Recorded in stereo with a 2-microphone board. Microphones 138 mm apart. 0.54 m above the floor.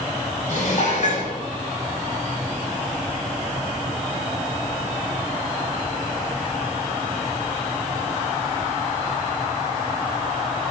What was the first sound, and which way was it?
Dishes clattering, 55° left (ahead or behind).